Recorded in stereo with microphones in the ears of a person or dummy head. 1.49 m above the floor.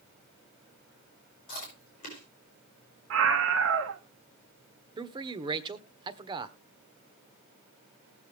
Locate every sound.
1.5 s chewing: 45° left (ahead or behind), 6.5 m
3.1 s a scream: 70° right (ahead or behind), 1.8 m
5.0 s a man speaking: 25° right (ahead or behind), 1.3 m